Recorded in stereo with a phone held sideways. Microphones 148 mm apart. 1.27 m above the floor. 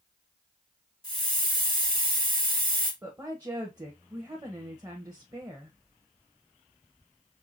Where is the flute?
No flute in this recording.